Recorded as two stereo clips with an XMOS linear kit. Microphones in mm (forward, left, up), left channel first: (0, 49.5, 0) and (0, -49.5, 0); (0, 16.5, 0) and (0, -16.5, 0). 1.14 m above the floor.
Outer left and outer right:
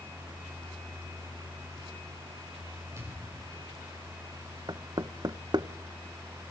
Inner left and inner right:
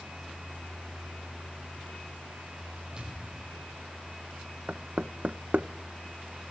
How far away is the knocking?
About 0.8 m.